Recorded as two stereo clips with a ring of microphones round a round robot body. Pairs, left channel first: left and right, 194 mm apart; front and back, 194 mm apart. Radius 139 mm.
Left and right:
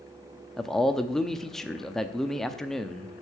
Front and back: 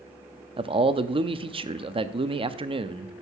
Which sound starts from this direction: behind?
A man speaking, at 0.6 s.